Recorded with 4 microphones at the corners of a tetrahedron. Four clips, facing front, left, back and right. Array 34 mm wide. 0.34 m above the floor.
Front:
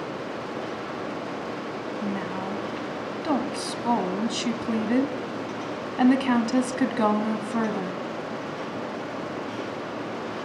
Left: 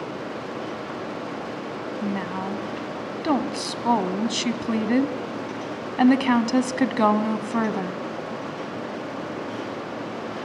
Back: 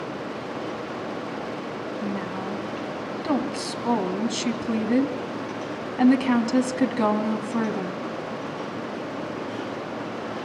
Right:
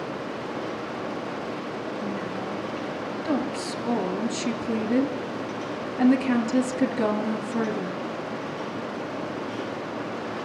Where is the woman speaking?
85° left, 2 m.